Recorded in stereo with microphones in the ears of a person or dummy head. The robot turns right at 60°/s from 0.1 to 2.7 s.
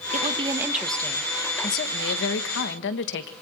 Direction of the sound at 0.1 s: 45° right.